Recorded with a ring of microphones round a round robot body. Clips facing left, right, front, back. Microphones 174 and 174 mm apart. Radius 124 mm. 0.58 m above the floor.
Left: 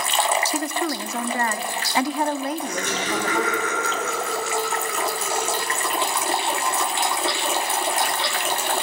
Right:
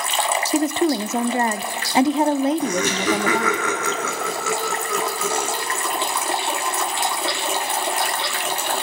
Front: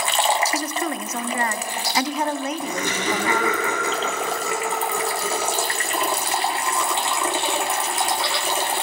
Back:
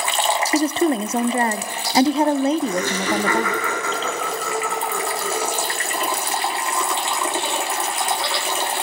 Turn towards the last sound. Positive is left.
turn(degrees=-80)